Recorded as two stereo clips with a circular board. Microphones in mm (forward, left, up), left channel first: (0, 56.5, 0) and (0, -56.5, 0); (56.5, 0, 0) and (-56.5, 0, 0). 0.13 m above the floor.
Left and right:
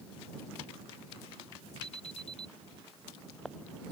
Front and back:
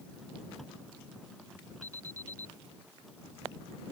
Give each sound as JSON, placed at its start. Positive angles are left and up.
{"t": 1.8, "sound": "an alarm", "azimuth_deg": 120}